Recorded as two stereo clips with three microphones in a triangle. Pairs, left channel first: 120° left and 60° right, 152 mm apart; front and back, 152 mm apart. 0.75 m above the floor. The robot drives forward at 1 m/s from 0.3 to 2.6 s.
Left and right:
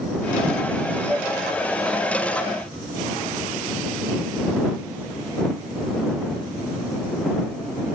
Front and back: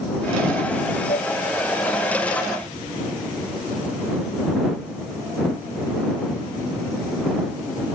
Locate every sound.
1.1 s a flute: 15° left; by 1.3 s 25° left